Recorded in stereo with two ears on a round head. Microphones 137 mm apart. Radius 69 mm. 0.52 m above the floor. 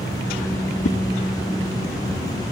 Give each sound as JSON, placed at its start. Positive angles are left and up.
{"t": 0.8, "sound": "a whoosh", "side_deg": 50, "distance_m": 1.1}